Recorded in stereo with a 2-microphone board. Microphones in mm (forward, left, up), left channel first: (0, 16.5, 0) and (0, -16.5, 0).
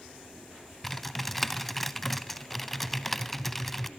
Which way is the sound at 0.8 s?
5° left (ahead or behind).